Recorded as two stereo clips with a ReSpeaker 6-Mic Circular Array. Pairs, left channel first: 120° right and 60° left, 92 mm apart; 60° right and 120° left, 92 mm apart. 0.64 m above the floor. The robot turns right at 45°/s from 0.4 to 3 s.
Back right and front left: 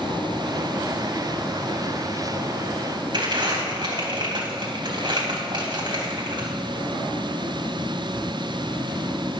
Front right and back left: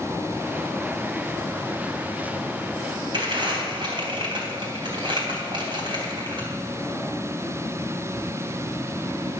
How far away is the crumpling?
About 3.5 m.